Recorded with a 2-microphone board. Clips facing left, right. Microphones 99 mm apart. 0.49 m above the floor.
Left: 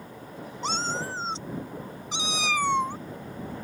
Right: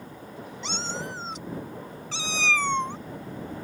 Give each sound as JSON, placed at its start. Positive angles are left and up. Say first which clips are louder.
{"t": 0.6, "sound": "a cat meowing", "louder": "left 4 dB", "side_deg": 45}